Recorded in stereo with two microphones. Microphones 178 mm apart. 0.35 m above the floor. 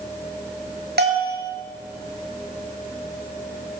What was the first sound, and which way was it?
A bell, 70° right (ahead or behind).